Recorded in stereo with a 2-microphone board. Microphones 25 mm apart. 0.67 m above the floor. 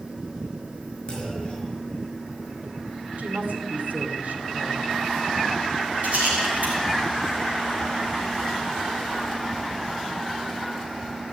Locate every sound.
1.1 s a clunk: 40° left (ahead or behind), 5 m
3.2 s a woman speaking: 70° right (ahead or behind), 2 m
6.0 s a rattle: 70° right (ahead or behind), 4.5 m